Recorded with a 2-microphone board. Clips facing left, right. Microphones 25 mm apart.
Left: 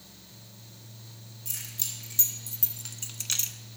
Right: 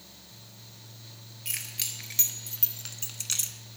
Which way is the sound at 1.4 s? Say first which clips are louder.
Right 2 dB; 60° right (ahead or behind).